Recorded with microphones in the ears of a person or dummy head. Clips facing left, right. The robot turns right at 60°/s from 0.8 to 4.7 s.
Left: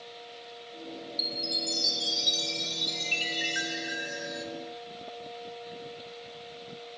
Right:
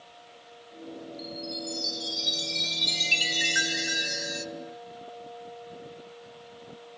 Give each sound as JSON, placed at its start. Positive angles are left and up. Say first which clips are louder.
{"t": 1.2, "sound": "a chime", "louder": "right 2 dB", "azimuth_deg": 120, "distance_m": 0.8}